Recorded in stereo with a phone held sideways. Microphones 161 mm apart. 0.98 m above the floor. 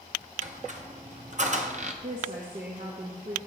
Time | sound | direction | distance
0.4 | a squeak | 50° right (ahead or behind) | 0.9 m
2.0 | a woman speaking | 55° right (ahead or behind) | 1.2 m